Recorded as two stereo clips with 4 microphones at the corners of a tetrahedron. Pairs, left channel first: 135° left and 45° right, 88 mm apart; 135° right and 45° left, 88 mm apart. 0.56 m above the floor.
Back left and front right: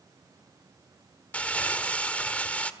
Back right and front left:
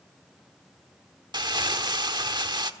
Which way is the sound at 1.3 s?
65° left.